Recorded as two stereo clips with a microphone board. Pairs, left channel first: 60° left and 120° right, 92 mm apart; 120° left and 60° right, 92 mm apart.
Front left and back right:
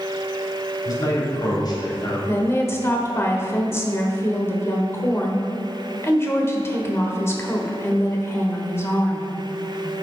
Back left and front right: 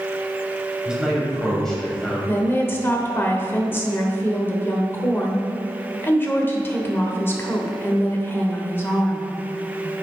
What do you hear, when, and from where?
0.8 s a man speaking: 25° left, 2.5 m; by 2.2 s 45° left, 2.5 m
2.3 s a woman speaking: 80° left, 0.9 m